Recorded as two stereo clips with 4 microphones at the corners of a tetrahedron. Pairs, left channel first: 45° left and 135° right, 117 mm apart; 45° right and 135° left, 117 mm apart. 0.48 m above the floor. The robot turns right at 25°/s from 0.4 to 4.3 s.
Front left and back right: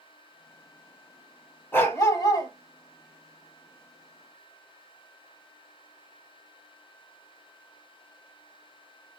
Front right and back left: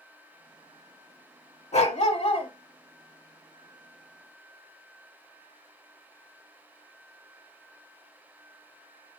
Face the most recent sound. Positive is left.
turn(degrees=40)